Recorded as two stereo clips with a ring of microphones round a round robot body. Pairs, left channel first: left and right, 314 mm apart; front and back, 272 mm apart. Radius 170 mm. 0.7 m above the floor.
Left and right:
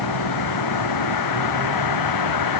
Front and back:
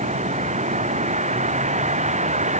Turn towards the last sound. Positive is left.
turn(degrees=115)